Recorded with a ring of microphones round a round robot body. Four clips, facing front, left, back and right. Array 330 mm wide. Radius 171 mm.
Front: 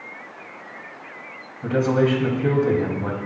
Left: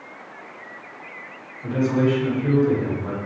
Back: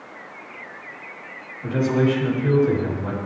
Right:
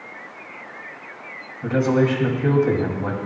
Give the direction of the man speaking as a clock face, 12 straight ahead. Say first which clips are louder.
Right 2 dB, front 1 dB; 2 o'clock.